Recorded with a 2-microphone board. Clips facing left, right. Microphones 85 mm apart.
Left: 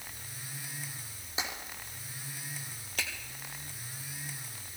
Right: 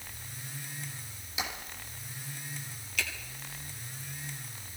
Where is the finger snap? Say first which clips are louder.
Right 2 dB; 45° left (ahead or behind), 3 m.